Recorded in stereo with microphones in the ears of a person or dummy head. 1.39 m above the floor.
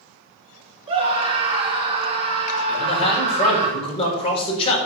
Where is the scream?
25° right (ahead or behind), 3 m.